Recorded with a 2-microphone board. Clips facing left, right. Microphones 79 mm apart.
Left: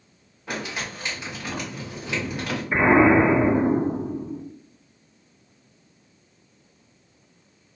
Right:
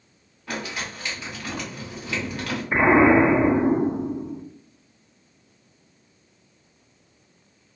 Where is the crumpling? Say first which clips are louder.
Even; 15° left (ahead or behind), 1.7 m.